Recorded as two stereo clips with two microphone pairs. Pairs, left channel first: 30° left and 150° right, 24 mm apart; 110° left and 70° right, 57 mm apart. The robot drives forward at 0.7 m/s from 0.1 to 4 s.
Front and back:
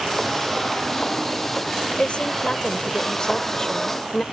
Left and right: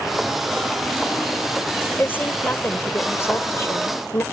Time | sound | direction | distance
2.0 | a woman speaking | 60° left | ?